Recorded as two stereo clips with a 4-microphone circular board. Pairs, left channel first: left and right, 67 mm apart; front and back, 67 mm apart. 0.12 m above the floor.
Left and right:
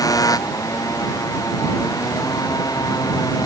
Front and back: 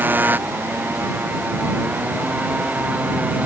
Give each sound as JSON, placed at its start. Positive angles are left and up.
{"t": 0.0, "sound": "a motorcycle", "azimuth_deg": 115}